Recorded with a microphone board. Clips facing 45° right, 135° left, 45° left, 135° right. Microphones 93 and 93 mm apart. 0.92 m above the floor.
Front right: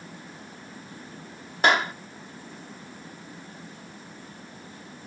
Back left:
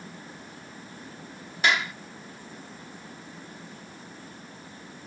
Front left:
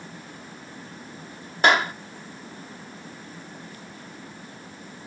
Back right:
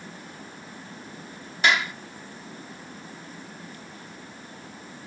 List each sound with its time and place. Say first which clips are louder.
1.6 s a clap: front right 4 dB, front left 4 dB; straight ahead